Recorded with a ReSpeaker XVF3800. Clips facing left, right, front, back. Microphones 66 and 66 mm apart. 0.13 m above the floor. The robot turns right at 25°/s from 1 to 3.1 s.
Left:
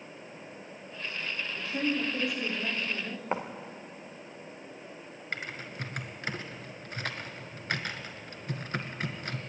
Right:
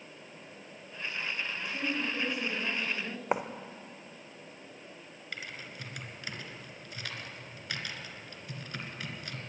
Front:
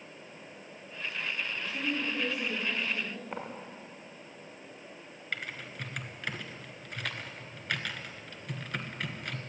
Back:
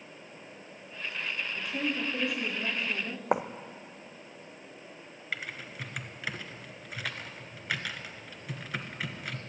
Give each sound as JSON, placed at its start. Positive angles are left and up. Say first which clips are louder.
{"t": 1.6, "sound": "a woman speaking", "louder": "left 6 dB, back 3 dB", "azimuth_deg": 150, "distance_m": 8.5}
{"t": 3.3, "sound": "writing", "louder": "right 2 dB, back 14 dB", "azimuth_deg": -165, "distance_m": 1.7}
{"t": 5.3, "sound": "typing on a keyboard", "louder": "left 5 dB, even", "azimuth_deg": 100, "distance_m": 1.8}